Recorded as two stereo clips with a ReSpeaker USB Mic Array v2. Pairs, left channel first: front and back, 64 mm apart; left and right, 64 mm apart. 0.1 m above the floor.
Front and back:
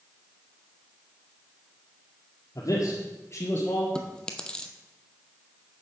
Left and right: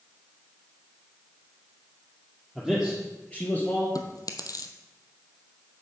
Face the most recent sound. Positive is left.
turn(degrees=75)